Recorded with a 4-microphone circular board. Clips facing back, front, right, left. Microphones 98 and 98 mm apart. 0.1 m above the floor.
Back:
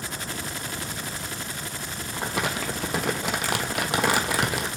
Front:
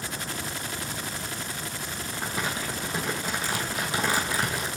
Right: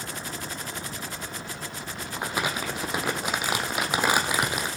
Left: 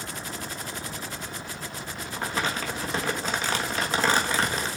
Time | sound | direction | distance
2.2 | crumpling | 165° right | 1.3 m